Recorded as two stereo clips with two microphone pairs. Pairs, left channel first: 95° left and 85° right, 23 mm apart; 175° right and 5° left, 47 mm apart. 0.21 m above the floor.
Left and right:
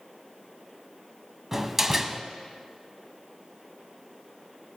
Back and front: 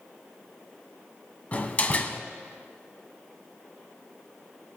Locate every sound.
1.5 s a door slam: 150° right, 0.9 m